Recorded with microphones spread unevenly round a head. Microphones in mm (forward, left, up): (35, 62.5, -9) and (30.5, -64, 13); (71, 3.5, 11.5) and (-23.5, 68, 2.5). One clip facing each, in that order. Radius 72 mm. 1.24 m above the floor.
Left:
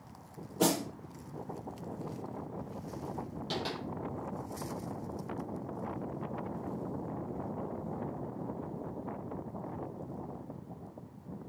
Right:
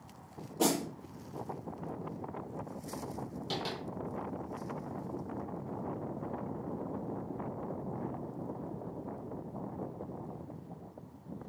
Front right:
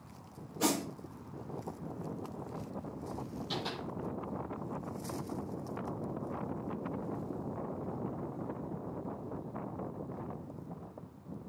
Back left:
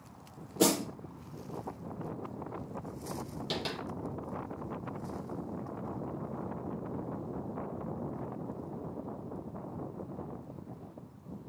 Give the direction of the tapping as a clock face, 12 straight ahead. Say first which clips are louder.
Left 1 dB, back left 2 dB; 6 o'clock.